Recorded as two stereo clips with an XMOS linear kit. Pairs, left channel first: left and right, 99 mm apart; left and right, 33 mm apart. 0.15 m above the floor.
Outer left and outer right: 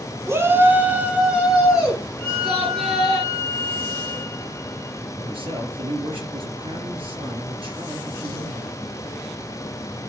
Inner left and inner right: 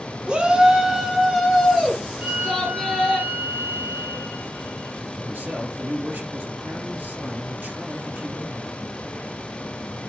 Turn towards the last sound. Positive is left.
turn(degrees=-65)  # may be behind; listen again after turning